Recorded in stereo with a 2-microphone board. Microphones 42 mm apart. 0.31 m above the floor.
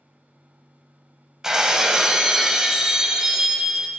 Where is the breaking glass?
15° right (ahead or behind), 0.8 m.